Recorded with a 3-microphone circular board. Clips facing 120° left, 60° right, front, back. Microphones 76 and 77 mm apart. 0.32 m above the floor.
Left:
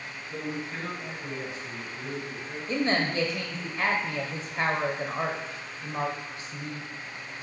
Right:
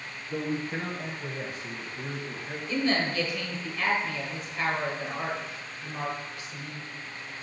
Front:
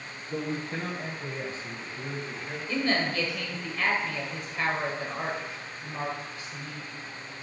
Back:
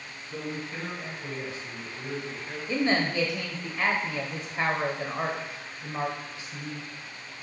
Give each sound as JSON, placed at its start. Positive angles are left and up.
{"t": 0.3, "sound": "a man speaking", "azimuth_deg": -20, "distance_m": 1.7}
{"t": 2.7, "sound": "a woman speaking", "azimuth_deg": 135, "distance_m": 1.1}